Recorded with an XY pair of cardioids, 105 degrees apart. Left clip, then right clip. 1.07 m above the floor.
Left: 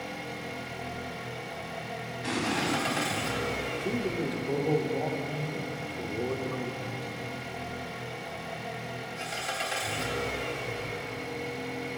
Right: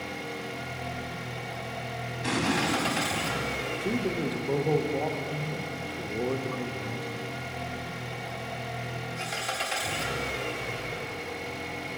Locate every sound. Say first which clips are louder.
0.0 s an engine running: right 2 dB; 20° right, 0.9 m
2.2 s an explosion: right 2 dB; 30° right, 1.1 m
3.7 s a man speaking: right 1 dB; 20° right, 0.6 m